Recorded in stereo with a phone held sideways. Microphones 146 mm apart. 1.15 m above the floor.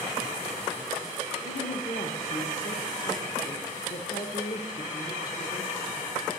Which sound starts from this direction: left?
A woman speaking, at 1.4 s.